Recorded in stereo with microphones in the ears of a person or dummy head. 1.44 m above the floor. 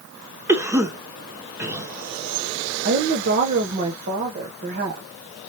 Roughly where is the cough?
Centre.